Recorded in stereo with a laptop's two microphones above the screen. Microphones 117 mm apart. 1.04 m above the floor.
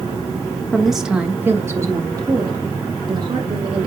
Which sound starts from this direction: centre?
A woman speaking, at 0.7 s.